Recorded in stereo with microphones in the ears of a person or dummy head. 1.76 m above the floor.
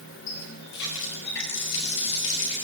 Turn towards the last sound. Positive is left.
turn(degrees=70)  # may be behind; listen again after turning